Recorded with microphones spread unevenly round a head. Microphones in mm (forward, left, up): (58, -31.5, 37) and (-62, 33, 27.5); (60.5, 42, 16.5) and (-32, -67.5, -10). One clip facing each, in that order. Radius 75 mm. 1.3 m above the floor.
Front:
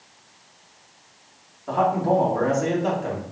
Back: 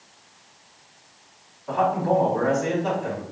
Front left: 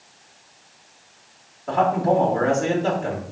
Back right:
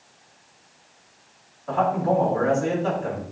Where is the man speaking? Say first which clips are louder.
Front 1 dB, front left 2 dB; 5° left, 2.5 m.